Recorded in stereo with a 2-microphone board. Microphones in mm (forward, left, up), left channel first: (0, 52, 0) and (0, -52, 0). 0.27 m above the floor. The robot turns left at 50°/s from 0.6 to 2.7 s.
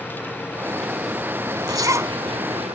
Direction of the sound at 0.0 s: 20° left.